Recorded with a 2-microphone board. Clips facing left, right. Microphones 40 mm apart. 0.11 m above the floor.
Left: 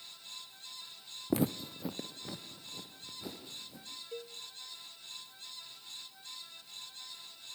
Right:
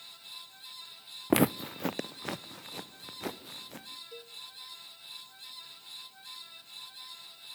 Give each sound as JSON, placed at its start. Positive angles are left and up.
{"t": 1.3, "sound": "footsteps", "side_deg": -80, "distance_m": 0.5}
{"t": 4.1, "sound": "a cowbell", "side_deg": 30, "distance_m": 1.0}